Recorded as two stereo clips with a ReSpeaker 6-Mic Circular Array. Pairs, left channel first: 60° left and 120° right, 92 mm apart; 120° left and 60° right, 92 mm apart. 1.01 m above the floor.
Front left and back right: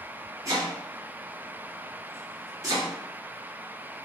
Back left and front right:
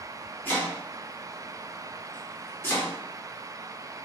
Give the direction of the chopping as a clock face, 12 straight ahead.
6 o'clock.